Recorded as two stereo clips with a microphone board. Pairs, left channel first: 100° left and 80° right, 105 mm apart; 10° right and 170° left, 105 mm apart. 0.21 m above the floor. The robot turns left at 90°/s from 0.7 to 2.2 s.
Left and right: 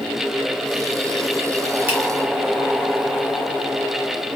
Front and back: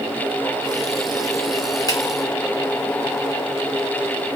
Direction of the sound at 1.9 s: 25° right.